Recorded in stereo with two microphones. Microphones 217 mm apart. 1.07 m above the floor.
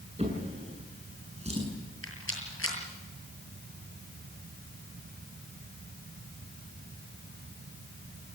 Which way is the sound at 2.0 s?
70° left (ahead or behind).